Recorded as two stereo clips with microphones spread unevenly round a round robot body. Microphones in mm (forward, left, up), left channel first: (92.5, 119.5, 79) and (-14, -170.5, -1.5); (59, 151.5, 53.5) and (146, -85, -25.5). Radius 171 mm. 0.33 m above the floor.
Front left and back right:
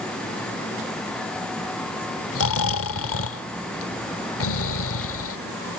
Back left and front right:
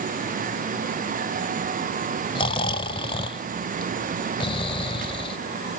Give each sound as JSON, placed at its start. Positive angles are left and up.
{"t": 2.4, "sound": "snoring", "azimuth_deg": 30}